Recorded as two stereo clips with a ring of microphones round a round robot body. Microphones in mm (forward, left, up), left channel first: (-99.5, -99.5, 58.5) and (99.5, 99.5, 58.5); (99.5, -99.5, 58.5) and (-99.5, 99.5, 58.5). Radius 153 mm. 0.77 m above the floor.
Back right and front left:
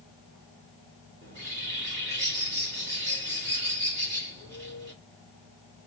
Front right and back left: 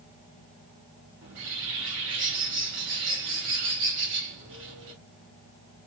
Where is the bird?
90° left, 1.6 m.